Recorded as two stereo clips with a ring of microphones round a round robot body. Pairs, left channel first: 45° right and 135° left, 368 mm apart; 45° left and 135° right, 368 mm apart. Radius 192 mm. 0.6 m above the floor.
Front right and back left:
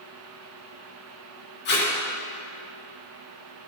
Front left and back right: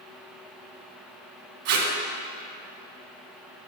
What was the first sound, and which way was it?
Tape being pulled, 110° right.